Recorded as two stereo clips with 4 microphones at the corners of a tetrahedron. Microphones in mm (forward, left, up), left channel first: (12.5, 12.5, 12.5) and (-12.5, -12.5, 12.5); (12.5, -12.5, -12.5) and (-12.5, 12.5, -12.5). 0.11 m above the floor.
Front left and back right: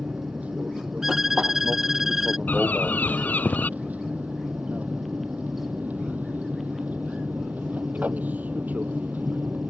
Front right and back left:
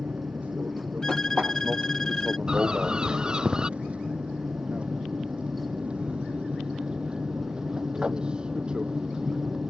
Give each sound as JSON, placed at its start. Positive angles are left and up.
{"t": 0.0, "sound": "an aircraft", "azimuth_deg": 180}
{"t": 1.0, "sound": "a violin", "azimuth_deg": -75}
{"t": 2.5, "sound": "a bird", "azimuth_deg": 70}